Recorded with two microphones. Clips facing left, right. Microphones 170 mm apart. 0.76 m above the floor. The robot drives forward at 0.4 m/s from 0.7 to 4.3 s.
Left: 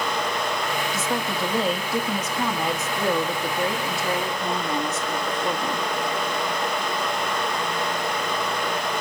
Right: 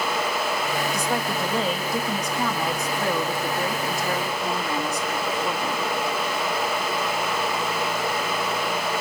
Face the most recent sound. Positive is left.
turn(degrees=0)  # may be behind; listen again after turning